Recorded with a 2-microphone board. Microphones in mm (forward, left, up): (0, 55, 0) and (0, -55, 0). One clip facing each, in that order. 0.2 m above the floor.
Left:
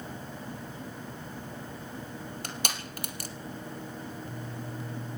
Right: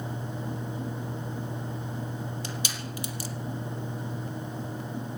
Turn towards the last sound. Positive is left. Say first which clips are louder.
# right 1 dB
turn(degrees=55)  # may be behind; listen again after turning